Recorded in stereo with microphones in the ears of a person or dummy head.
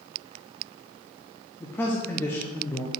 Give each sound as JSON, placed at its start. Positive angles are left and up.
{"t": 1.6, "sound": "a man speaking", "side_deg": 10, "distance_m": 0.7}